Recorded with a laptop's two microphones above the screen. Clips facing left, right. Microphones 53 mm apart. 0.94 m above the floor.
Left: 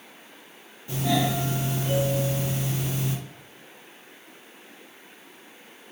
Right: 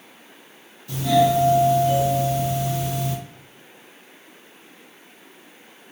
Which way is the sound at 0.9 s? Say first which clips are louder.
Right 7 dB; 30° left (ahead or behind).